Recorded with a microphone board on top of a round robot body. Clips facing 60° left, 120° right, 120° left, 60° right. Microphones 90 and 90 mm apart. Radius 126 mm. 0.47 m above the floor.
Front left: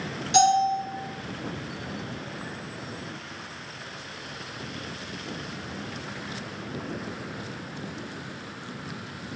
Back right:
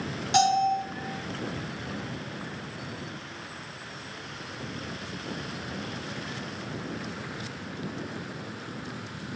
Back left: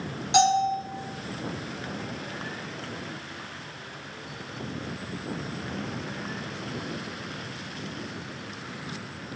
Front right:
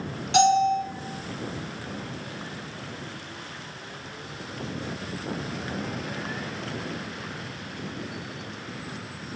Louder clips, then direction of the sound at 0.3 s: Front left 2 dB, front right 2 dB; 170° right.